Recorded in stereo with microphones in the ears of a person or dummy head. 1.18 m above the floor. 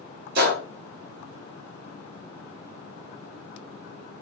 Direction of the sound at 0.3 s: 50° right (ahead or behind).